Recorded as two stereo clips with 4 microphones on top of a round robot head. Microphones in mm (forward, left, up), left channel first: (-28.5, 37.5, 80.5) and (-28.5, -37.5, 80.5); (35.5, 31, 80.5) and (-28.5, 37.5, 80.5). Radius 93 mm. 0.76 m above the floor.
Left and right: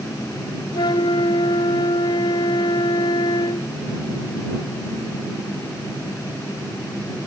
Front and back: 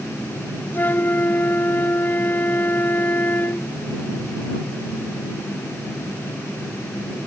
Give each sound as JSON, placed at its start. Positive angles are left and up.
{"t": 0.7, "sound": "a flute", "azimuth_deg": 55}